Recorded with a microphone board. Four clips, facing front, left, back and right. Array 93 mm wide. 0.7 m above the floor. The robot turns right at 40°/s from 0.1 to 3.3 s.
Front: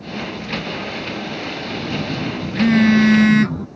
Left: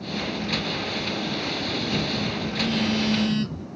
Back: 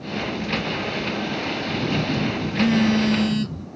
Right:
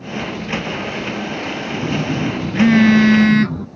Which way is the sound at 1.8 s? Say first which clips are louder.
Right 10 dB, back 1 dB; 105° right.